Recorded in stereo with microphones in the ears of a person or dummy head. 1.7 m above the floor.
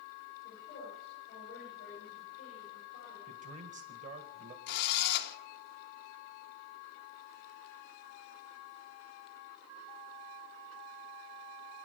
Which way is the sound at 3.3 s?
40° right (ahead or behind).